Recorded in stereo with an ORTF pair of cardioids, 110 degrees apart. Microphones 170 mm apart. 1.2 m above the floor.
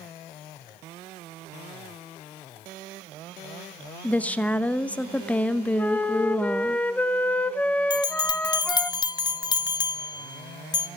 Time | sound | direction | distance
4.0 | a woman speaking | 10° left | 0.9 m
5.8 | a flute | 10° left | 0.7 m
7.9 | a bell | 25° left | 0.7 m